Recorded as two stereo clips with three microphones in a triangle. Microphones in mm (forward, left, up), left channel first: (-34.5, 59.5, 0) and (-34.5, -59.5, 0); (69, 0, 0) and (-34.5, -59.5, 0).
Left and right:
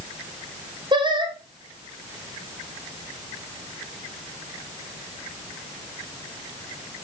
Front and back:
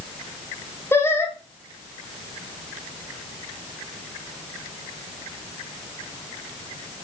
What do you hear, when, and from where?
0.9 s singing: 40° right, 2 m